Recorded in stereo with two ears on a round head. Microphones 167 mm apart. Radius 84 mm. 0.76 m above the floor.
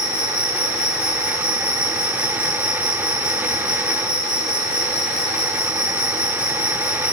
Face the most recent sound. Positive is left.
turn(degrees=-5)  # may be behind; listen again after turning